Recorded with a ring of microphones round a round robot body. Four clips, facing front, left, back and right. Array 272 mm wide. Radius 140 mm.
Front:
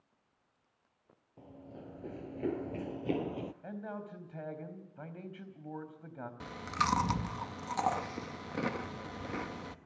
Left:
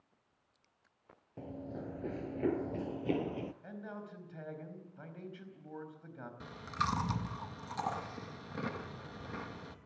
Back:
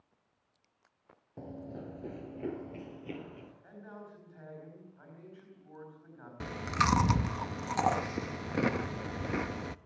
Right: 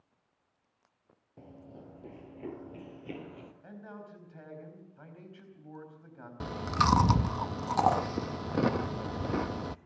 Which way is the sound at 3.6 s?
10° left.